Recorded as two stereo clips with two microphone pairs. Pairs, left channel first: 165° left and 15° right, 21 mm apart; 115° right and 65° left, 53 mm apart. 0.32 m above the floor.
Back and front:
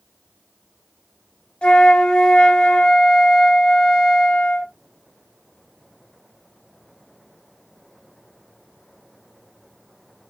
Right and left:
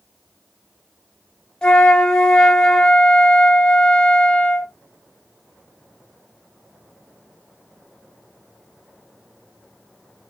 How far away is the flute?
About 1.2 m.